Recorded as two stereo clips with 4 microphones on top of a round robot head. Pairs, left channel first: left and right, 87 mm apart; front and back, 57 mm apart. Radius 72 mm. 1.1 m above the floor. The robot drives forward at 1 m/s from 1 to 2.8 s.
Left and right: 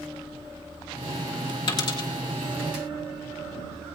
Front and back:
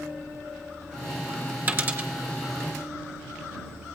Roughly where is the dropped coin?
Behind left.